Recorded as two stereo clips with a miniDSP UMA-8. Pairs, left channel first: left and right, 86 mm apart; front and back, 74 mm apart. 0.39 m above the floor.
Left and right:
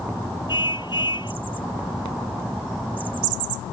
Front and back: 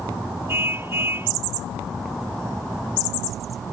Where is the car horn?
120° left.